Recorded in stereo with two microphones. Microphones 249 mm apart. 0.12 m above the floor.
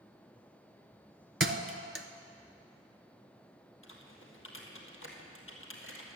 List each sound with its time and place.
1.4 s a thud: 55° right (ahead or behind), 0.7 m
3.8 s typing on a keyboard: 55° left (ahead or behind), 1.8 m